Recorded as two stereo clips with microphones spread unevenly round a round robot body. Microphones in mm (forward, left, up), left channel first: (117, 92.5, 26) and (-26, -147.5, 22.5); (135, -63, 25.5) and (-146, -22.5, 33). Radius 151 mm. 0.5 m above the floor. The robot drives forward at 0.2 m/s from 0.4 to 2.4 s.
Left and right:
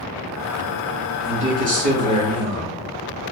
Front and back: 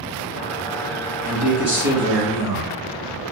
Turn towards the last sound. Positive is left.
turn(degrees=-135)